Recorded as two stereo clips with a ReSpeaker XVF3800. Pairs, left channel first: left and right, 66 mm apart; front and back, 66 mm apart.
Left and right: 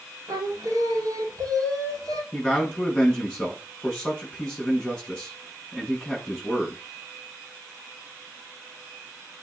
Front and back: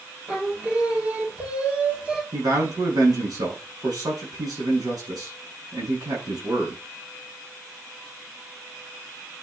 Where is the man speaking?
175° left, 6.5 m.